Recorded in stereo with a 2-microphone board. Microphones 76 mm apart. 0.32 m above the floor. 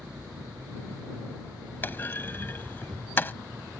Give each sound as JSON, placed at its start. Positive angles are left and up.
{"t": 0.0, "sound": "an engine running", "side_deg": -75}
{"t": 1.8, "sound": "a clunk", "side_deg": 30}